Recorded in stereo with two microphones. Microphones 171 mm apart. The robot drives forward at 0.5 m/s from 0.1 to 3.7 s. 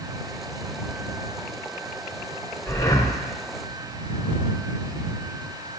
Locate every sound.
2.7 s breathing: 15° left (ahead or behind), 0.7 m; by 3.2 s 20° left (ahead or behind), 0.5 m